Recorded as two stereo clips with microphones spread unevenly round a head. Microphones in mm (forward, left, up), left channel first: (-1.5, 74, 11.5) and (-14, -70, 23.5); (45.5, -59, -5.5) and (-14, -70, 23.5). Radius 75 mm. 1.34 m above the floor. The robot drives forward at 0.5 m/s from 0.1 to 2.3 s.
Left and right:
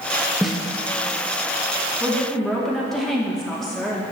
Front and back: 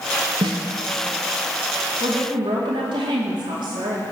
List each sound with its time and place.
0.4 s a snare drum: 175° left, 0.7 m
2.0 s a woman speaking: 170° left, 1.6 m